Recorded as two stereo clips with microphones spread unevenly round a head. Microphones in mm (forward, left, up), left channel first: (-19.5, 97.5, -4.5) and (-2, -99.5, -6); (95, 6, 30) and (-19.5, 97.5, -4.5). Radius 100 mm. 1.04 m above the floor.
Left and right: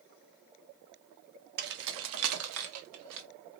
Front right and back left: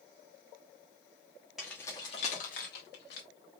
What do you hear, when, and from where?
1.6 s keys jangling: 130° right, 0.9 m; by 3.3 s 75° right, 1.8 m